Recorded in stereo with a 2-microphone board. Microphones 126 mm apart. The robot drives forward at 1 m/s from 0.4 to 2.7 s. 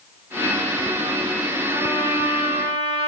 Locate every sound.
1.7 s a trumpet: 45° right (ahead or behind), 5.5 m; by 3.1 s 55° right (ahead or behind), 5 m